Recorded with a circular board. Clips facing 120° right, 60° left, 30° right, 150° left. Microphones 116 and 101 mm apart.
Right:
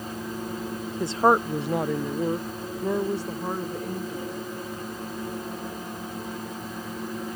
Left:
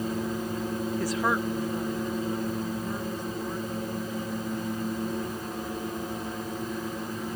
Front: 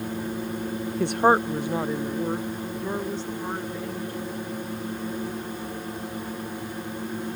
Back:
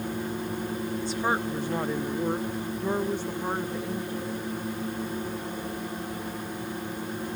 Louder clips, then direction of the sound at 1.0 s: Right 9 dB, front 10 dB; 45° right.